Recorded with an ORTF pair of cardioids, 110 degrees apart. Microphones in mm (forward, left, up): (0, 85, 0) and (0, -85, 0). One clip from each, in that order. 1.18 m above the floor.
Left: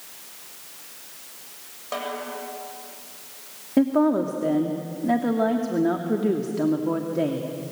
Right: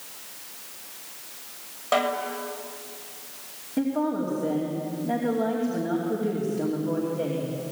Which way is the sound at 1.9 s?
25° right.